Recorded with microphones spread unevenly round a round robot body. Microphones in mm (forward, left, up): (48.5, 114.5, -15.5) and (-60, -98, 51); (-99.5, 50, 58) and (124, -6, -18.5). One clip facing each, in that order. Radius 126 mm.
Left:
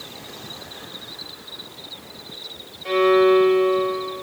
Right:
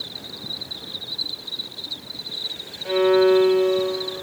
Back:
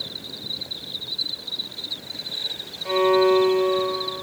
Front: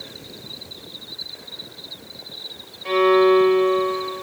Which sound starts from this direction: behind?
An insect, at 0.0 s.